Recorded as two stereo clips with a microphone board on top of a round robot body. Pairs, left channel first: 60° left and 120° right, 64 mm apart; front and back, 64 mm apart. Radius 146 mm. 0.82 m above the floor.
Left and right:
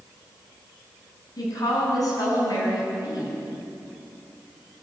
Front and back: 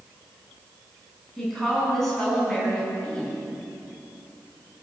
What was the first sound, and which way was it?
A woman speaking, 90° left.